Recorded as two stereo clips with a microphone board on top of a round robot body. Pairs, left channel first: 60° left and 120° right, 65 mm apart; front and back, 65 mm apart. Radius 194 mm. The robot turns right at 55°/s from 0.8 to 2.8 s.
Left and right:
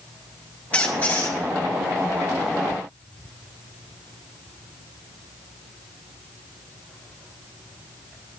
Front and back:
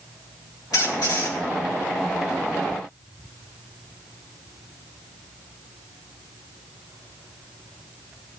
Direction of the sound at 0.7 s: 10° right.